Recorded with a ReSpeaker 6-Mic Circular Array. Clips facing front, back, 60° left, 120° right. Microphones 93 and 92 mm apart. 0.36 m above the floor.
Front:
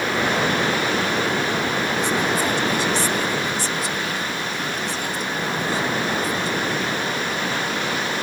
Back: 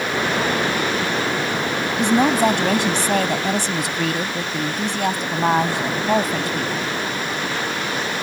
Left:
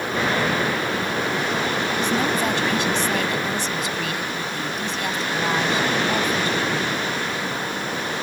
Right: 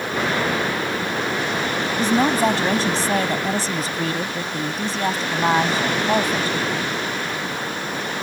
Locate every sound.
2.0 s a woman speaking: 170° right